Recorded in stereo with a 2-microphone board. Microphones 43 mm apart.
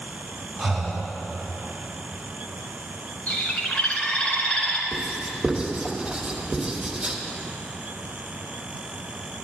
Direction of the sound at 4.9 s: 20° right (ahead or behind).